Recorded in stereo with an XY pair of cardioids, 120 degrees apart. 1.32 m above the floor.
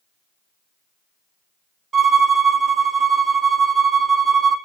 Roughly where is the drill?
No drill in this recording.